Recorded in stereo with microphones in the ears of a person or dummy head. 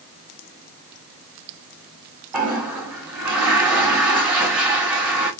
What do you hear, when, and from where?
2.3 s a toilet flushing: 5° right (ahead or behind), 0.8 m